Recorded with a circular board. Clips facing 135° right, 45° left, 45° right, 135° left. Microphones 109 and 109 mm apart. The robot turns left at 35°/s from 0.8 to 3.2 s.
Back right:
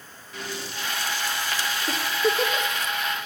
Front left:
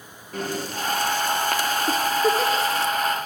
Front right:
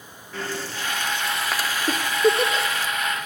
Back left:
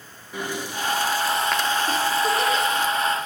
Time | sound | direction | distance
0.3 | breathing | 65° left | 0.9 m
1.9 | a giggle | 25° right | 1.2 m